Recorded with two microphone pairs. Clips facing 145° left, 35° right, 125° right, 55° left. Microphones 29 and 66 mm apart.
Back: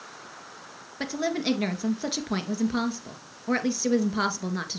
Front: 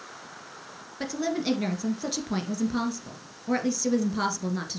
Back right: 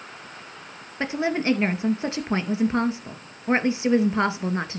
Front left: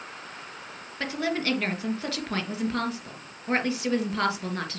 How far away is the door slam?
No door slam in this recording.